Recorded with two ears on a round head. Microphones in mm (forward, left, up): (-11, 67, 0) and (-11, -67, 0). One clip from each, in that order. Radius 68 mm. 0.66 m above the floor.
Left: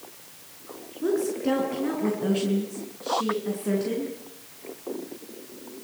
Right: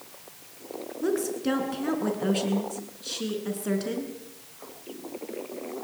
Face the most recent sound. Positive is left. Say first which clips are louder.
# left 2 dB
turn(degrees=-30)  # may be behind; listen again after turning